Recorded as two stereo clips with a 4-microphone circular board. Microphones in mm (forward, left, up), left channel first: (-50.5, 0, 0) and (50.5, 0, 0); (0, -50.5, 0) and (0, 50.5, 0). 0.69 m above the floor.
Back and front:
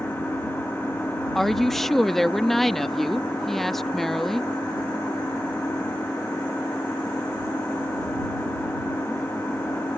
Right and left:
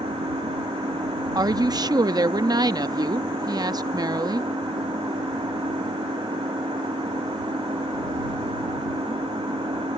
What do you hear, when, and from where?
0.0 s an engine running: 110° left
1.4 s a woman speaking: 95° left